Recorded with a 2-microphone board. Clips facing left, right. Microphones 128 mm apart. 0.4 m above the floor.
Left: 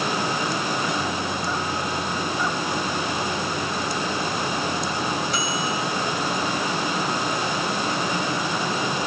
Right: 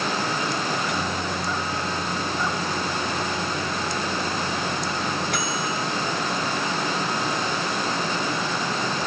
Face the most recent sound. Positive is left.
turn(degrees=-65)  # may be behind; listen again after turning